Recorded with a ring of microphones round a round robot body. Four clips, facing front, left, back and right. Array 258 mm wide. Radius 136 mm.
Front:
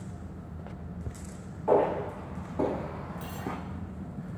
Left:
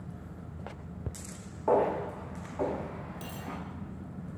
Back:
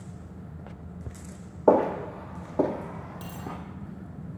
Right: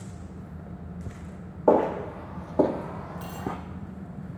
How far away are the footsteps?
About 1.0 m.